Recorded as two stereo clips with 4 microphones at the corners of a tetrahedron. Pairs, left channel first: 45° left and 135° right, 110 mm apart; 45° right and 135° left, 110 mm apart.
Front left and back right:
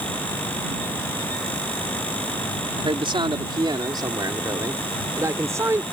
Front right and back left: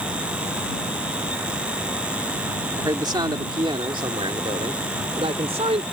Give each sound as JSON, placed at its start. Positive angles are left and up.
{"t": 2.8, "sound": "a man speaking", "azimuth_deg": -175}